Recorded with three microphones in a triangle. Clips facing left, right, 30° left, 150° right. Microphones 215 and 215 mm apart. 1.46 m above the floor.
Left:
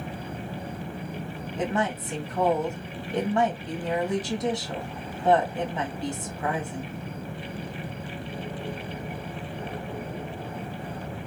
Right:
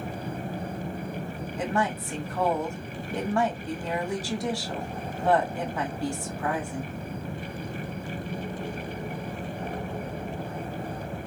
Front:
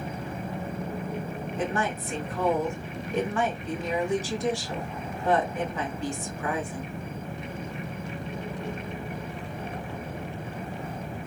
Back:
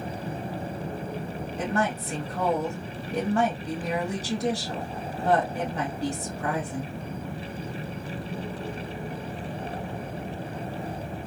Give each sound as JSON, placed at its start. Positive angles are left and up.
{"t": 1.6, "sound": "a woman speaking", "azimuth_deg": 160, "distance_m": 1.7}